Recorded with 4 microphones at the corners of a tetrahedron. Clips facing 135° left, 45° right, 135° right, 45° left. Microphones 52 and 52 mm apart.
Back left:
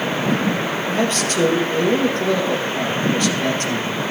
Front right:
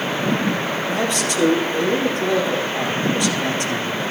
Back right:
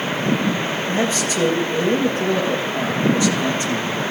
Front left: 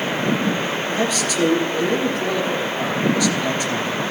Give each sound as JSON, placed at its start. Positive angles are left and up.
{"t": 0.9, "sound": "a man speaking", "azimuth_deg": 170, "distance_m": 3.0}